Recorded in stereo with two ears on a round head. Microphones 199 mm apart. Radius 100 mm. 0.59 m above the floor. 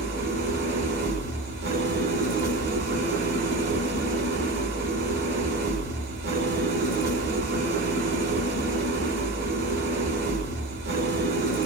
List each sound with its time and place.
0.0 s an engine running: 45° right (ahead or behind), 1.3 m